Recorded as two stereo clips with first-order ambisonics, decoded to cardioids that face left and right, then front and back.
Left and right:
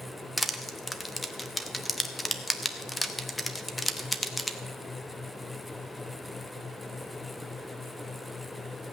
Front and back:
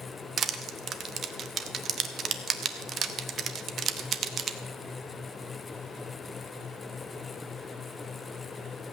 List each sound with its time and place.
0.4 s crushing: 170° left, 0.8 m